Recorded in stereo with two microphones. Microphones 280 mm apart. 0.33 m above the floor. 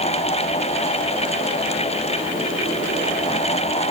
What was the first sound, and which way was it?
Only background noise.